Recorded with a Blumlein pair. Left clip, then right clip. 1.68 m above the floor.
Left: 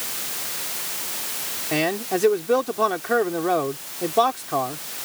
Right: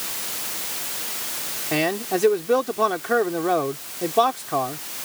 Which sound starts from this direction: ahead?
A man speaking, at 1.7 s.